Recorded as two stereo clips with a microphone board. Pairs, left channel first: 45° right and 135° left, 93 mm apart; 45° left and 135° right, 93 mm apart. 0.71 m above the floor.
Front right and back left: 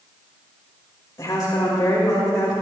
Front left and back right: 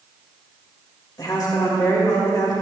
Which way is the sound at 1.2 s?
Straight ahead.